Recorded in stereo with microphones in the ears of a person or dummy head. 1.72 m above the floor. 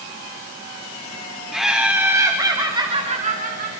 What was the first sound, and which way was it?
Laughter, centre (ahead or behind).